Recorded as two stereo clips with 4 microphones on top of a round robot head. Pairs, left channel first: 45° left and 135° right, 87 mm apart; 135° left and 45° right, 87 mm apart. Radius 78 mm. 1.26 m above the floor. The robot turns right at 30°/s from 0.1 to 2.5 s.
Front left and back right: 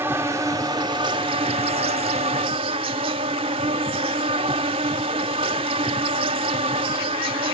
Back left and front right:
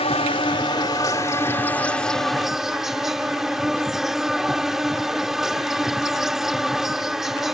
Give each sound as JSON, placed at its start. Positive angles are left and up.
{"t": 0.0, "sound": "an insect", "azimuth_deg": 160}